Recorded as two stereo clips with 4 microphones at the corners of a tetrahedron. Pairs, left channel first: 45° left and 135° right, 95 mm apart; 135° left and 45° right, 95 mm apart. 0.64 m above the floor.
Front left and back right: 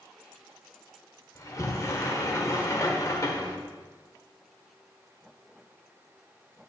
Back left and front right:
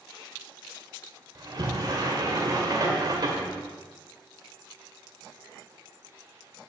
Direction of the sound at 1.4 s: 5° right.